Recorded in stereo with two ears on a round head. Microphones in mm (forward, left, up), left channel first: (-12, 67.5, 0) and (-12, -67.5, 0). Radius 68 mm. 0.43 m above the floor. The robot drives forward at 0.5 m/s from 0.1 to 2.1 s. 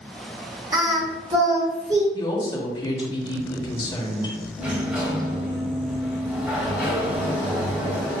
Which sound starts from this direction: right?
Singing, at 0.7 s.